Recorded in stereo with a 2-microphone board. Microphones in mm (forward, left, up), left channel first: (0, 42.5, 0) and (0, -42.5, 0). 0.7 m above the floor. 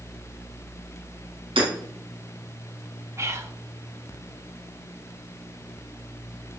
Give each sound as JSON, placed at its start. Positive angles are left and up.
{"t": 1.6, "sound": "hammering", "side_deg": -90, "distance_m": 3.5}
{"t": 3.2, "sound": "whispering", "side_deg": -35, "distance_m": 1.0}